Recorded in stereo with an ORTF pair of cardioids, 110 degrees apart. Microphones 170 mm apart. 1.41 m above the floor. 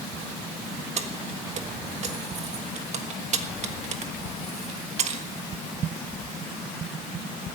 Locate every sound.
1.0 s keys jangling: 45° right, 1.4 m